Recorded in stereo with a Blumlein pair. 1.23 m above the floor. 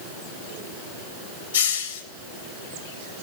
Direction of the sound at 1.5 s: 70° left.